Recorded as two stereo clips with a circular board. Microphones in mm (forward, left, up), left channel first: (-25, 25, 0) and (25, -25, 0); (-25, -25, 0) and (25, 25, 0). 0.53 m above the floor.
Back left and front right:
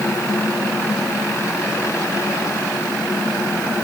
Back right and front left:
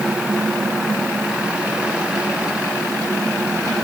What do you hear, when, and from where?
Only background noise.